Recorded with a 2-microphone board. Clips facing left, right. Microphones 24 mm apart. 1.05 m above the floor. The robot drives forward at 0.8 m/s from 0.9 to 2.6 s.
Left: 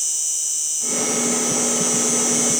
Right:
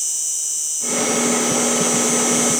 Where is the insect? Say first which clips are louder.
Even; 5° left (ahead or behind).